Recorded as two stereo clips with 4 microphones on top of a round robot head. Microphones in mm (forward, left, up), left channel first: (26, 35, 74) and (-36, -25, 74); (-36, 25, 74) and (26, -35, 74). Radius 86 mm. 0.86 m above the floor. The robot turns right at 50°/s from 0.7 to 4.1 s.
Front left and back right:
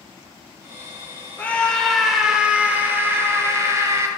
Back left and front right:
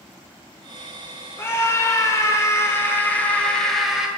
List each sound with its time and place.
1.4 s a scream: 100° left, 1.1 m; by 4.1 s 125° right, 1.1 m